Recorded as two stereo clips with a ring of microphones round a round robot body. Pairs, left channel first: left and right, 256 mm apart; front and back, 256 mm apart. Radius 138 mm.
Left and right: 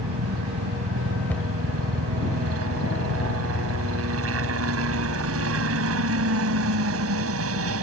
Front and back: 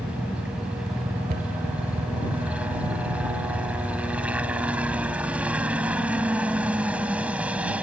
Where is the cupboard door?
170° left.